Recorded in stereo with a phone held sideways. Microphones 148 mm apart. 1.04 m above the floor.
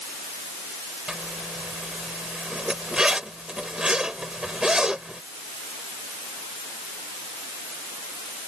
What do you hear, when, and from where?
1.1 s a zipper: 5° right (ahead or behind)